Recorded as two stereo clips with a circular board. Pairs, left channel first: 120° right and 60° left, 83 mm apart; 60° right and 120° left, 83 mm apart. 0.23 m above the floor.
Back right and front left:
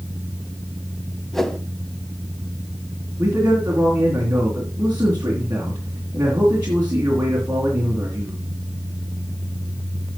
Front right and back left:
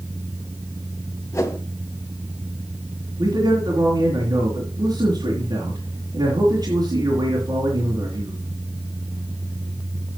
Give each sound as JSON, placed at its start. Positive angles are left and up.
{"t": 1.3, "sound": "a whoosh", "azimuth_deg": -35, "distance_m": 1.1}
{"t": 3.2, "sound": "a man speaking", "azimuth_deg": 120, "distance_m": 2.5}